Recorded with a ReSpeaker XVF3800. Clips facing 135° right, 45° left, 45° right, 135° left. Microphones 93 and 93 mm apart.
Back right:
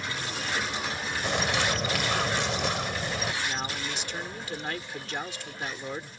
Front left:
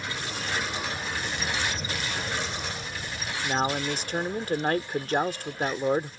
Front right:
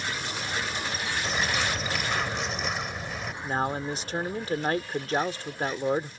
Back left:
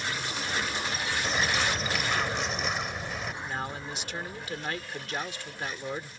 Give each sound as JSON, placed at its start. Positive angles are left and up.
{"t": 1.2, "sound": "a bird", "azimuth_deg": -135}
{"t": 3.4, "sound": "a man speaking", "azimuth_deg": 5}